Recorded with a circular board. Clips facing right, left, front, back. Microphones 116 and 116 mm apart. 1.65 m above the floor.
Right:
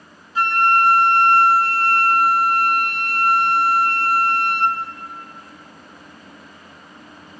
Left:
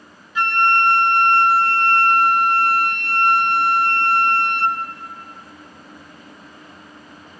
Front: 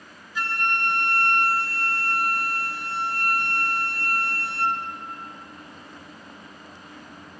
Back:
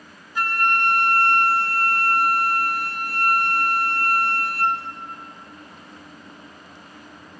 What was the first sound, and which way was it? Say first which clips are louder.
A flute: right 1 dB, back 5 dB; 145° right.